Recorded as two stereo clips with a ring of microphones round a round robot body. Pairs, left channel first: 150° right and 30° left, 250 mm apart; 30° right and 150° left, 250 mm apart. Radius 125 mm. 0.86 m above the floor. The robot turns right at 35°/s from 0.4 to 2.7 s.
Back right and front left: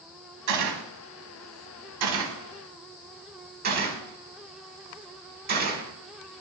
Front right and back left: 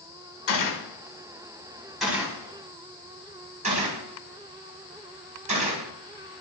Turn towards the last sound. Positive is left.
turn(degrees=85)